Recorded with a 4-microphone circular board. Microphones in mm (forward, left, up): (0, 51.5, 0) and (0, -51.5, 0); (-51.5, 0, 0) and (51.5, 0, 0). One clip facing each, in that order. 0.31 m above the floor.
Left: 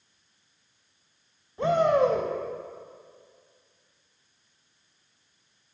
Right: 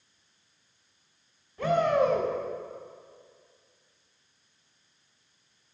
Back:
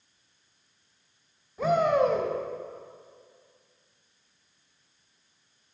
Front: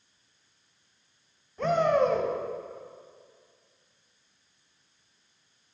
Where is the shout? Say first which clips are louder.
Left 2 dB, back 1 dB; 100° left, 1.0 m.